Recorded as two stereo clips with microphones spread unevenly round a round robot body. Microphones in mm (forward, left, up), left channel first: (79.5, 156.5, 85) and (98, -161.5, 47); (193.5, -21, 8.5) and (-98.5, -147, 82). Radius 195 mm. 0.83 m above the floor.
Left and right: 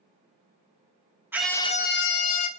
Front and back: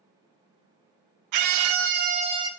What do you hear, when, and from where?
1.3 s a scream: 160° right, 0.7 m; by 2.5 s 120° left, 1.0 m